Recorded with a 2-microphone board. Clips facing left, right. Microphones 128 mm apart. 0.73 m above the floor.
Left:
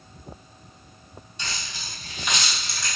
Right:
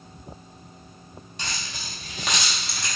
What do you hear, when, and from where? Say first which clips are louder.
1.4 s keys jangling: right 1 dB; 65° right (ahead or behind), 1.6 m; by 2.9 s 60° right (ahead or behind), 1.0 m